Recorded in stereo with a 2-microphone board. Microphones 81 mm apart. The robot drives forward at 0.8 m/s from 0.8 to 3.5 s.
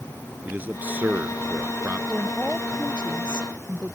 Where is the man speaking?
20° right (ahead or behind); by 2.0 s 25° right (ahead or behind).